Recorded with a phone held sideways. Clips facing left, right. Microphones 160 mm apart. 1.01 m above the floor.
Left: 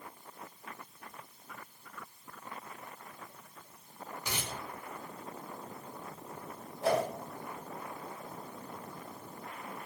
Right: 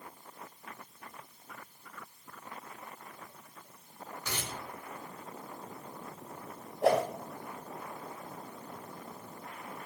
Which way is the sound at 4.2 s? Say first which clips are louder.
Even; 15° left (ahead or behind).